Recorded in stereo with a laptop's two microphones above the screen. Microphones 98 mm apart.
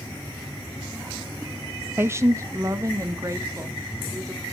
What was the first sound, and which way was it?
A woman speaking, 25° right (ahead or behind).